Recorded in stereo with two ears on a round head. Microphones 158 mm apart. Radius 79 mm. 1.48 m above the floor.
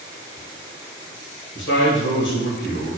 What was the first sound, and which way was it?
A man speaking, 80° left.